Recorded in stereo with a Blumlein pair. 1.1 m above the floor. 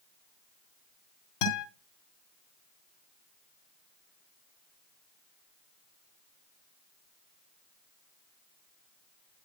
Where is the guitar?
45° left, 2.5 m.